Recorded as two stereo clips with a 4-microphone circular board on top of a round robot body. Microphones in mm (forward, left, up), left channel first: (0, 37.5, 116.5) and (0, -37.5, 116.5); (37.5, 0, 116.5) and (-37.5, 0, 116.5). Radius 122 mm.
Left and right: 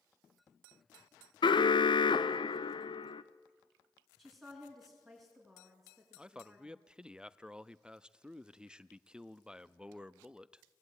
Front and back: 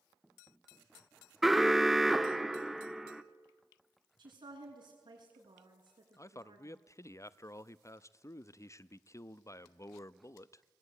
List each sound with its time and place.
1.4 s an alarm: 95° left, 0.9 m
4.2 s a woman speaking: straight behind, 7 m
6.2 s a man speaking: 15° right, 0.7 m